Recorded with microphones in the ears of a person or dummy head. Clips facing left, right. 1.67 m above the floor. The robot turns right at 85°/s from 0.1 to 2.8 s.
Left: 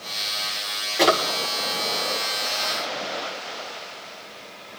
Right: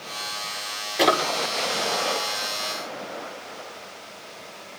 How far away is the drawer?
About 2 m.